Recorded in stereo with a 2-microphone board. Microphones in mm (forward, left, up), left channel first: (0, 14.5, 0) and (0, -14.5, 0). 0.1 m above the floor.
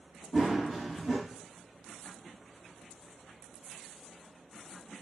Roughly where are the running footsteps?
Centre.